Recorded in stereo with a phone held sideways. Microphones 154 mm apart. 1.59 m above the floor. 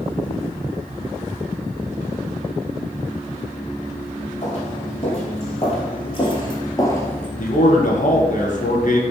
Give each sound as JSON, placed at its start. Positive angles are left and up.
{"t": 4.4, "sound": "footsteps", "side_deg": 45, "distance_m": 3.5}
{"t": 7.4, "sound": "a man speaking", "side_deg": 55, "distance_m": 1.6}